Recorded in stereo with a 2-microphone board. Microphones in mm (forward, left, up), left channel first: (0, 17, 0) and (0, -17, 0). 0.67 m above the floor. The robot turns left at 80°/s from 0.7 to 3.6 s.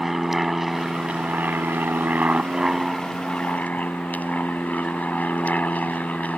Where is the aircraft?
5° right (ahead or behind); by 6.4 s 50° left (ahead or behind).